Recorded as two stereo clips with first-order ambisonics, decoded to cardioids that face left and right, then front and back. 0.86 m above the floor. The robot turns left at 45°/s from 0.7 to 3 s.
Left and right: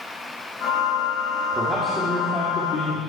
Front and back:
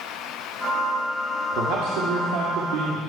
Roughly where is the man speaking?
Behind.